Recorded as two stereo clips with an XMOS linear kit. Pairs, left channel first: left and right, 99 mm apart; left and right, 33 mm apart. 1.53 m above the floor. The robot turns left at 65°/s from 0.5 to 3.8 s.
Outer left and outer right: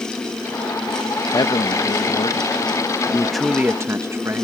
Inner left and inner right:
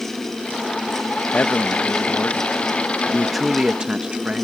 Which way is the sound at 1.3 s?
130° left.